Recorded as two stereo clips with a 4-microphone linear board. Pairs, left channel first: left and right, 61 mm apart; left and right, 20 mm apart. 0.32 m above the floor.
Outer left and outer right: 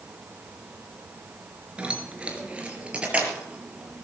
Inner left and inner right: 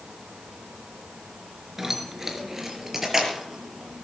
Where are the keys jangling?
15° right (ahead or behind), 3.5 m; by 4.0 s 20° right (ahead or behind), 5.5 m.